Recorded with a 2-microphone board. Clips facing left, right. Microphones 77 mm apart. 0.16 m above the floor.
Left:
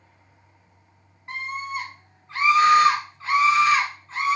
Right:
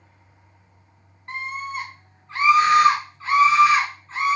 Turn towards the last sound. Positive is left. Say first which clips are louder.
# even
turn(degrees=0)  # may be behind; listen again after turning